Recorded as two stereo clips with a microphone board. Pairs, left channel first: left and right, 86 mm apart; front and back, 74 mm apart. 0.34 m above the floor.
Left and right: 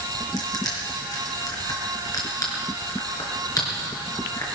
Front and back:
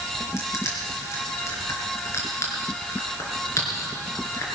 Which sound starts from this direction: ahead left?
Crushing, at 0.4 s.